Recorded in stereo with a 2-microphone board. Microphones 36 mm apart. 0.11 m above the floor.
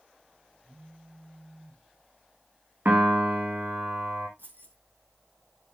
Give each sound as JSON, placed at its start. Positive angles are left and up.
{"t": 0.6, "sound": "a phone buzzing", "side_deg": -65, "distance_m": 5.0}
{"t": 2.9, "sound": "a piano", "side_deg": -55, "distance_m": 2.0}
{"t": 4.4, "sound": "keys jangling", "side_deg": -75, "distance_m": 4.0}